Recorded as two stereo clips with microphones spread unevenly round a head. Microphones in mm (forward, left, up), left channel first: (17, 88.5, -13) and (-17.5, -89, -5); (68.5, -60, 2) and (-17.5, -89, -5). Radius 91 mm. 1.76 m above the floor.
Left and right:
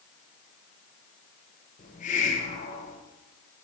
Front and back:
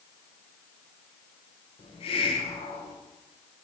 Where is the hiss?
30° left, 1.3 m.